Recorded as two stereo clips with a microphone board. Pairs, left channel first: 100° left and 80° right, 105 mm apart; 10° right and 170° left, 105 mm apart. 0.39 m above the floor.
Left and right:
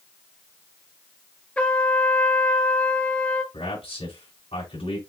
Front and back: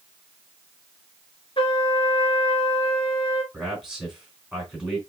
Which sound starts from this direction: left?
A man speaking, at 3.5 s.